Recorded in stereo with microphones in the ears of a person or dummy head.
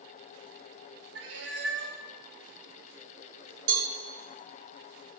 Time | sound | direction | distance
1.1 | a cat meowing | 70° right (ahead or behind) | 1.6 m
3.7 | a cowbell | 75° right (ahead or behind) | 3.5 m